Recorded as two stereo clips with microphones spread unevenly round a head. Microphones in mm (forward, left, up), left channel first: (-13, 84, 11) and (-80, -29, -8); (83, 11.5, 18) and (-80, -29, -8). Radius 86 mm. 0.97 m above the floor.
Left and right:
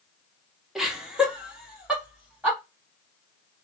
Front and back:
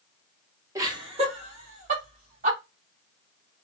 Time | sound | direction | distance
0.8 | laughter | 170° left | 0.9 m